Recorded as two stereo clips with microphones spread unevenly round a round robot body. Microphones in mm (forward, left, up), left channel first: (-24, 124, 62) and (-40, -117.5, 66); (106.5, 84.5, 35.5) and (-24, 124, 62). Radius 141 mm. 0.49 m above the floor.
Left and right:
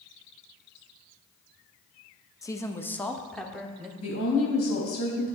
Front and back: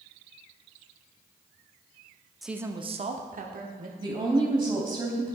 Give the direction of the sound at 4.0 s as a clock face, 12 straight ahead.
8 o'clock.